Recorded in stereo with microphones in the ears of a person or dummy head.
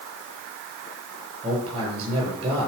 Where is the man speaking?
30° right (ahead or behind), 8 m.